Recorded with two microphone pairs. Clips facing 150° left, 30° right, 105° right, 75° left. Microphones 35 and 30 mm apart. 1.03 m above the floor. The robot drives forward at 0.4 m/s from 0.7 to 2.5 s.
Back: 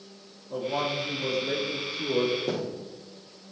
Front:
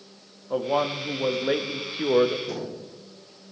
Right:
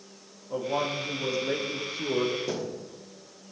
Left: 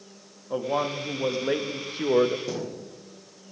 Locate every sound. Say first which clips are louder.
0.5 s a man speaking: front 4 dB, left 2 dB; 10° left, 1.4 m; by 2.4 s 20° left, 0.7 m
2.5 s a thud: back 2 dB, even; 160° left, 3.5 m